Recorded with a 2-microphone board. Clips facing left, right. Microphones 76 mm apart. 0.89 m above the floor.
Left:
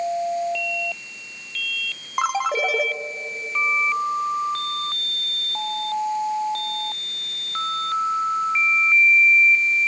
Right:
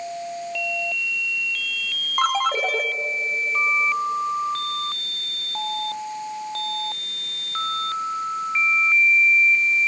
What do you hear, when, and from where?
2.2 s a ringtone: 5° left (ahead or behind), 0.6 m